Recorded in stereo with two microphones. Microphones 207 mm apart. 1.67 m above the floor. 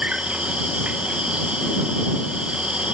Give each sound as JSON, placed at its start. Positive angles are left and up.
{"t": 0.0, "sound": "an insect", "side_deg": -5}